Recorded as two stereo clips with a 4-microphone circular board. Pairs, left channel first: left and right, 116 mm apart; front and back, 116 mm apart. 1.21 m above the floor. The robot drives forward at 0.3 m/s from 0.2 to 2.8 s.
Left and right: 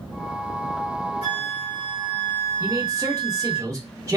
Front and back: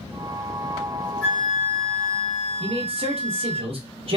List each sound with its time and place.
1.2 s a flute: 85° left, 2.5 m; by 3.6 s 95° left, 2.5 m
2.6 s a man speaking: 150° right, 1.1 m